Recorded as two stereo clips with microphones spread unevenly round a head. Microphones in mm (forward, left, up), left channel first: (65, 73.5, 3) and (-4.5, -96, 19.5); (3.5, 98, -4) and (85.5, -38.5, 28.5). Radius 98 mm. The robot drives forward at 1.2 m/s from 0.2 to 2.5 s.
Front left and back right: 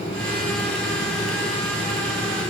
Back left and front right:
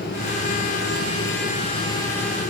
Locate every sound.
Only background noise.